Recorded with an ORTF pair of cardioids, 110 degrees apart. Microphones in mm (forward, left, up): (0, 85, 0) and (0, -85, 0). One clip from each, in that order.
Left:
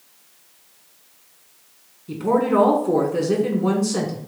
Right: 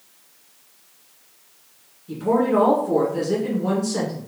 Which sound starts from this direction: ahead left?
A woman speaking, at 2.1 s.